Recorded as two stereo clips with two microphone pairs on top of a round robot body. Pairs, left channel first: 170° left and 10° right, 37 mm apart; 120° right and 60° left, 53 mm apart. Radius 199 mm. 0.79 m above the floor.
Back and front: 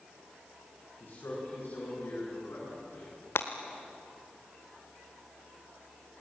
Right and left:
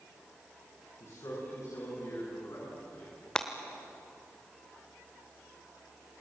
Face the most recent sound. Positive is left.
turn(degrees=160)